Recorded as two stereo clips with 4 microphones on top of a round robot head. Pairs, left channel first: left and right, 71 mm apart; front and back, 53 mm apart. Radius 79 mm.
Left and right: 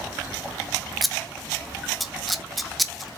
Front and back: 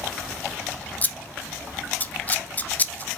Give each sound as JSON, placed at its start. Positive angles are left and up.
{"t": 1.0, "sound": "scissors", "azimuth_deg": 0, "distance_m": 0.5}